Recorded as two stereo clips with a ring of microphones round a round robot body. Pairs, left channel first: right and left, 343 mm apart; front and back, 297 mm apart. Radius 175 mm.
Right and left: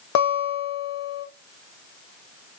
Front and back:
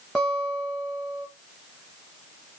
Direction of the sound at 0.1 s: 90° right.